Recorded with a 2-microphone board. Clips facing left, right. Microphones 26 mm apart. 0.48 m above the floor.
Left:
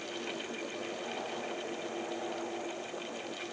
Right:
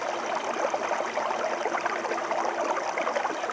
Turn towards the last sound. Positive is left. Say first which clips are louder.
# right 10 dB
turn(degrees=-85)